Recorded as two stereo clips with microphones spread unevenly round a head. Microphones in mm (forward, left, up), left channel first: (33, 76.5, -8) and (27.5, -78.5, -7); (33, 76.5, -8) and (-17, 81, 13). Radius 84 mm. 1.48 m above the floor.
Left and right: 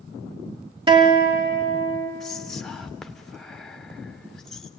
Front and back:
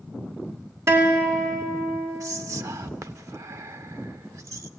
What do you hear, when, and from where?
0.9 s a guitar: 155° right, 2.5 m
2.2 s whispering: 175° left, 0.8 m